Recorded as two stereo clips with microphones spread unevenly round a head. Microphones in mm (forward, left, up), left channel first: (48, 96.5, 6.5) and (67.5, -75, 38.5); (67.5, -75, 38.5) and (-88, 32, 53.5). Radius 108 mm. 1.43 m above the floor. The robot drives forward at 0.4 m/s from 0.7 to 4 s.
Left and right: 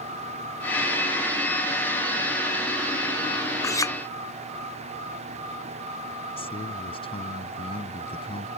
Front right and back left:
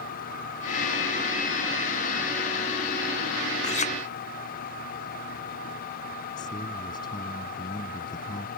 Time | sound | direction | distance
3.6 | a clink | 25° left | ?
6.4 | a man speaking | 35° left | ?